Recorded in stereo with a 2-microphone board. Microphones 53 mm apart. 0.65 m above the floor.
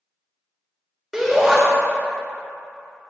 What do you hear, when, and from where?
1.1 s a shout: centre (ahead or behind), 1.8 m